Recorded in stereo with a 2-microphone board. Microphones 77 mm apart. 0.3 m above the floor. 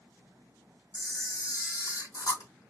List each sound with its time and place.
0.9 s a camera shutter: 60° left (ahead or behind), 3 m